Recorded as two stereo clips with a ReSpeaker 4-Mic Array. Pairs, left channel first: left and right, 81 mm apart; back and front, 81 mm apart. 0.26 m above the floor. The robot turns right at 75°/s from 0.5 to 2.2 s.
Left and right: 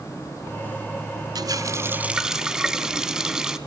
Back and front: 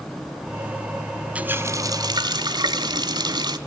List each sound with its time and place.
1.4 s a running tap: 70° right, 1.3 m; by 3.6 s 10° right, 1.3 m